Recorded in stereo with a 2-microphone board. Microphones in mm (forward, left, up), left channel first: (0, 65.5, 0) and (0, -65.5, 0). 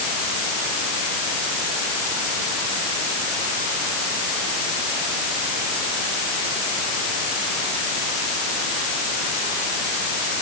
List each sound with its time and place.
Only background noise.